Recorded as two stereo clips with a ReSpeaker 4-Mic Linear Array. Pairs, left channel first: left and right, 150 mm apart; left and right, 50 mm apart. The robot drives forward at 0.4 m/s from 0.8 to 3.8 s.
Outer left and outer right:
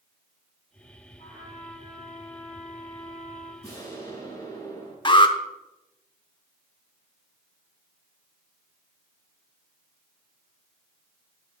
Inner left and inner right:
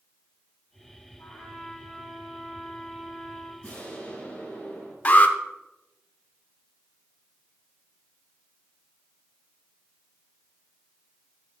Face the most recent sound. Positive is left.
turn(degrees=35)  # may be behind; listen again after turning